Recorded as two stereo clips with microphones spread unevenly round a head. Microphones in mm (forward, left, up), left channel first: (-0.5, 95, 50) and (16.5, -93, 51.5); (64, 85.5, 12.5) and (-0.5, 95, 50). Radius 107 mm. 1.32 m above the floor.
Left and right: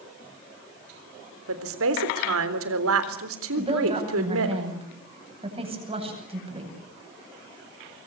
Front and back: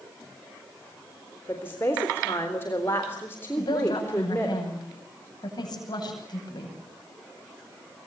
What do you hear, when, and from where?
1.5 s a woman speaking: 80° right, 3.5 m
3.6 s a woman speaking: 25° right, 9.5 m